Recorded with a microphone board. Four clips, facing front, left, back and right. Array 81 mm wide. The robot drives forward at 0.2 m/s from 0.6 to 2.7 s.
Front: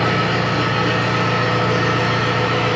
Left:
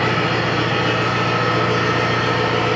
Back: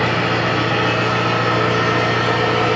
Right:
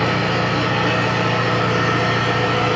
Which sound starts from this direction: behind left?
An engine running, at 0.0 s.